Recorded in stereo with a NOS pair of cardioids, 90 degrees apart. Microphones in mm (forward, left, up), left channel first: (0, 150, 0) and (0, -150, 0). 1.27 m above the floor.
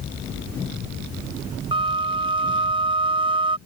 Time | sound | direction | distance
1.7 | a flute | 15° right | ?